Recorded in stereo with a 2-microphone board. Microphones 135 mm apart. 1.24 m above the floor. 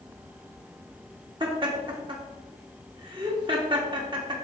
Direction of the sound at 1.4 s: 40° right (ahead or behind).